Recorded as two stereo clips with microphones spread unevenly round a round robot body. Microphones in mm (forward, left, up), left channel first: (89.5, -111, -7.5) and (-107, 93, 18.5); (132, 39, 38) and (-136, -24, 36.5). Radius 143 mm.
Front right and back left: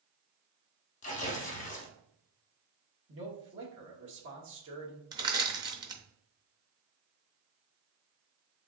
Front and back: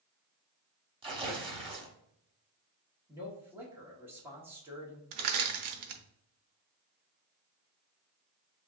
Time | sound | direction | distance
1.0 | tearing paper | 100° right | 0.9 m
3.1 | a man speaking | 115° left | 1.4 m
5.1 | crushing | 150° right | 0.7 m